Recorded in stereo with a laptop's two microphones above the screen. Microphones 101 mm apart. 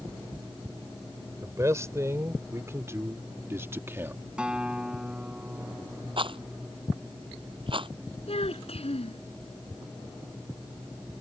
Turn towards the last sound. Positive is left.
turn(degrees=80)